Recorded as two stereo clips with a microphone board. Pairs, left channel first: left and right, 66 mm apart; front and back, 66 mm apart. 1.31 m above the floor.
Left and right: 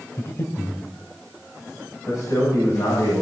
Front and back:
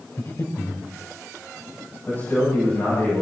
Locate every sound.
0.2 s breathing: 45° left, 2.5 m
2.1 s a man speaking: 60° left, 9.5 m